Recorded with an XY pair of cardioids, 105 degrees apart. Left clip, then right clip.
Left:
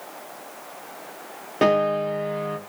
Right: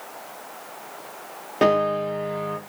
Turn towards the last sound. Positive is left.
turn(degrees=0)